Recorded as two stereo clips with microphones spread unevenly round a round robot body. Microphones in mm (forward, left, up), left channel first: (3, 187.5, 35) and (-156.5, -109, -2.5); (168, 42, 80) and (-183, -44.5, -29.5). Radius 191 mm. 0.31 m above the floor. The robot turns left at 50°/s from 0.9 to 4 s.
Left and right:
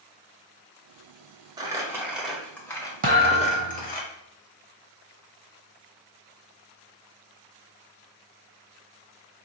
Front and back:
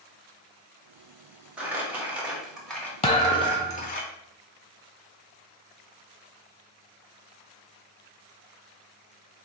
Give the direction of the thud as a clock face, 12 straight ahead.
2 o'clock.